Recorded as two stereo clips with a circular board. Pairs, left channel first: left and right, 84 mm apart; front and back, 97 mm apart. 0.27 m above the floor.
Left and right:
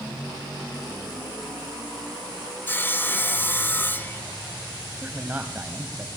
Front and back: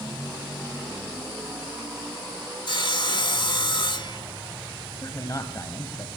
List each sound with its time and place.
2.7 s sawing: 25° left, 0.8 m
5.0 s a man speaking: 30° right, 1.8 m